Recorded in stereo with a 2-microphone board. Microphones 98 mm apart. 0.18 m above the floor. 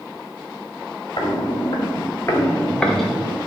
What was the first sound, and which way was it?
Footsteps, 55° left (ahead or behind).